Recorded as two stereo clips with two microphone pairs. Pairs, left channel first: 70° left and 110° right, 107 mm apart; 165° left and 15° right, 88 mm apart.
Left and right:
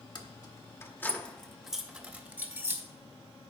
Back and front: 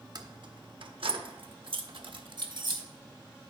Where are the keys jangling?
30° left, 0.9 m; by 2.8 s 45° right, 1.3 m.